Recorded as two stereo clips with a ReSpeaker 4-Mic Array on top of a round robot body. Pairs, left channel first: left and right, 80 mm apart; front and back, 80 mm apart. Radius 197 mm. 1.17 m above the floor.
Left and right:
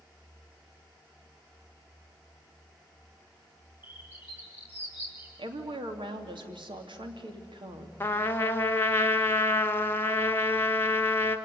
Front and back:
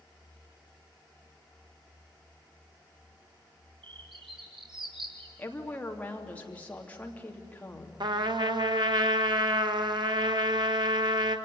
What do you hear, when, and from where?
3.8 s a bird: 155° right, 5 m
5.4 s a woman speaking: 70° right, 3 m
8.0 s a trumpet: 155° left, 1.5 m